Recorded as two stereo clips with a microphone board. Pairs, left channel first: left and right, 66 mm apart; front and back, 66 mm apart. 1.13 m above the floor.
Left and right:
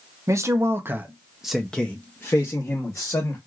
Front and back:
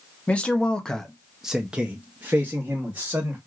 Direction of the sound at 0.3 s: 70° right.